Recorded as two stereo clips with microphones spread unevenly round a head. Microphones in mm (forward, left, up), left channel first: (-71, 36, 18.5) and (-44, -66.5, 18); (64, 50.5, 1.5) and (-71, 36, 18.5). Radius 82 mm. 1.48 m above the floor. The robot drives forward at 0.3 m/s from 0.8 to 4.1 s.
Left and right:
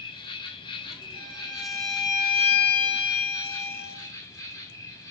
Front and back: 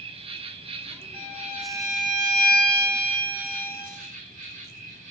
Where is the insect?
140° left, 1.0 m; by 5.1 s 160° left, 1.8 m.